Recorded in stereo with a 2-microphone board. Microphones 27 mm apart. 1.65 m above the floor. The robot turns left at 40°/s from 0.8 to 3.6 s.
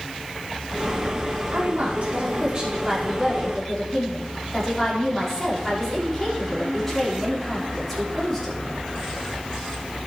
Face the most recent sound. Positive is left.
turn(degrees=180)